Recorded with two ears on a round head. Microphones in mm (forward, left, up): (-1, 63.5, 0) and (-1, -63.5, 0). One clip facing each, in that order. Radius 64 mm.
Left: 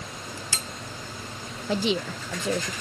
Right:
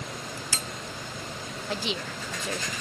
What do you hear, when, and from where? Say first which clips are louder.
1.7 s a woman speaking: left 7 dB; 75° left (ahead or behind)